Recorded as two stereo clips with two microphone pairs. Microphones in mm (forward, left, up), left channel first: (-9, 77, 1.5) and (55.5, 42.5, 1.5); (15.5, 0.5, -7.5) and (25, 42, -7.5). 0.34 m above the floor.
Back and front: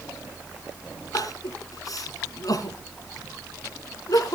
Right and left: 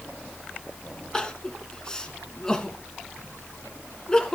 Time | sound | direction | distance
1.1 | crying | 175° right | 1.8 m